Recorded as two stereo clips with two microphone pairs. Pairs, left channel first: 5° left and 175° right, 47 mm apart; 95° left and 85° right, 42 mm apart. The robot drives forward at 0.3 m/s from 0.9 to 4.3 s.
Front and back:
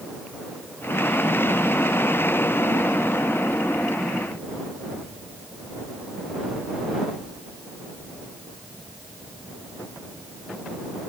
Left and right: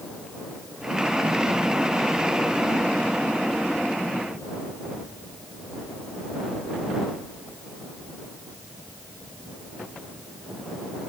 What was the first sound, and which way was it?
Only background noise.